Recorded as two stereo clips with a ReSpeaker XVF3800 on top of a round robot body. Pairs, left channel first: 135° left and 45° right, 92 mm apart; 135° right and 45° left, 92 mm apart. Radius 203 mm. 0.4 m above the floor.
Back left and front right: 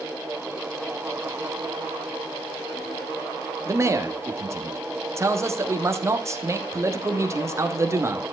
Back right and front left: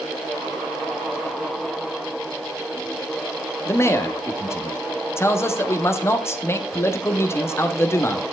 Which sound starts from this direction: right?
A man speaking, at 3.6 s.